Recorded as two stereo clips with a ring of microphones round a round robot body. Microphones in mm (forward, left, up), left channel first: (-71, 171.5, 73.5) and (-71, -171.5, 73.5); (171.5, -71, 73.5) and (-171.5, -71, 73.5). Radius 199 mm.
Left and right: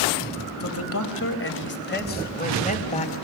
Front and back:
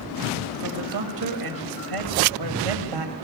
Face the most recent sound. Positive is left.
turn(degrees=165)